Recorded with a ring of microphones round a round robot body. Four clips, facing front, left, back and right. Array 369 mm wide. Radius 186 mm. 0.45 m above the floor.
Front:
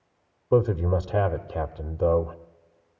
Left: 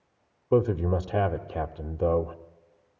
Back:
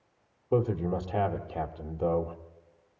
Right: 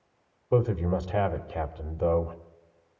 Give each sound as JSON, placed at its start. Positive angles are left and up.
{"t": 0.5, "sound": "a man speaking", "azimuth_deg": 40, "distance_m": 1.2}